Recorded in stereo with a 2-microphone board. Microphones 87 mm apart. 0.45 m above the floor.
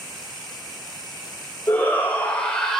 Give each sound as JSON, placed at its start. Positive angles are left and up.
{"t": 1.7, "sound": "a shout", "side_deg": 25, "distance_m": 1.9}